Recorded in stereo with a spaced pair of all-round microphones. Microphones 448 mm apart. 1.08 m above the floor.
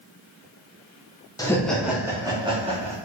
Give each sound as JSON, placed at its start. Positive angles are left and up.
{"t": 1.4, "sound": "laughter", "side_deg": 10, "distance_m": 0.7}